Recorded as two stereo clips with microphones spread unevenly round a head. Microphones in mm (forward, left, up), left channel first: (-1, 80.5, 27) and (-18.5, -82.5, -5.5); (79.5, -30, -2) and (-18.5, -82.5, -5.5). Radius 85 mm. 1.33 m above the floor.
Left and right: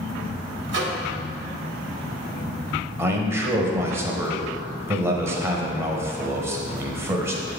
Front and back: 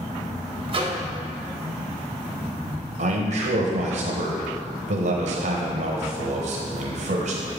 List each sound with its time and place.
0.7 s a microwave: 115° right, 1.4 m
3.0 s a man speaking: 165° right, 0.9 m